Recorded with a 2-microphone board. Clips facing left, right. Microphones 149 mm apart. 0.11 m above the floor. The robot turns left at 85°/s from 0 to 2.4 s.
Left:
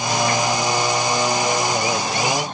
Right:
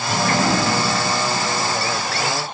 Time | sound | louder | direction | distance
0.1 | a sliding door | right 2 dB | 35° right (ahead or behind) | ?